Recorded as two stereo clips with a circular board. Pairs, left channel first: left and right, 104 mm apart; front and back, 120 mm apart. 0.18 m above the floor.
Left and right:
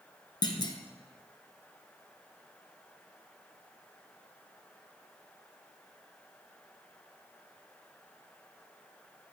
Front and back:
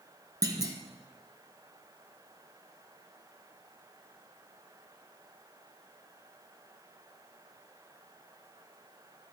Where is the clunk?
125° left, 0.8 m.